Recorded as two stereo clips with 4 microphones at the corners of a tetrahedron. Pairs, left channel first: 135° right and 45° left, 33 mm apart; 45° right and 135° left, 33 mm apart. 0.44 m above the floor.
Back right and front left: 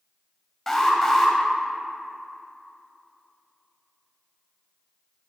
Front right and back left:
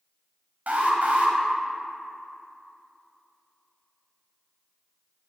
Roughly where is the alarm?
Behind left.